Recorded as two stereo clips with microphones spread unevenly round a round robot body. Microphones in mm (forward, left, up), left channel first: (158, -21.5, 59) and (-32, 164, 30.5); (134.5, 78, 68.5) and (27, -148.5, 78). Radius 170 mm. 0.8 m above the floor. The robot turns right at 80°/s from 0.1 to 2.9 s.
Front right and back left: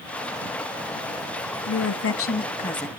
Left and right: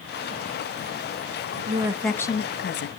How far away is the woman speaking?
About 1.4 m.